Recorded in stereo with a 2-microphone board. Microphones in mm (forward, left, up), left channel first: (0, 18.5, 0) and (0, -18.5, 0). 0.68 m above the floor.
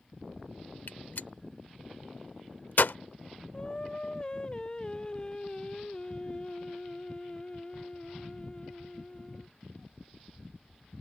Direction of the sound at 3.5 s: 25° left (ahead or behind).